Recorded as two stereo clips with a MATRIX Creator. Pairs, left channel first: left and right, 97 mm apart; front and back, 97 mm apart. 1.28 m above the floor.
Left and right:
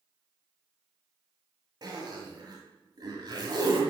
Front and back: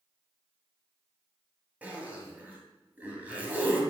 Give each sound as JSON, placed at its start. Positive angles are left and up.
{"t": 1.8, "sound": "a zipper", "azimuth_deg": -110, "distance_m": 1.5}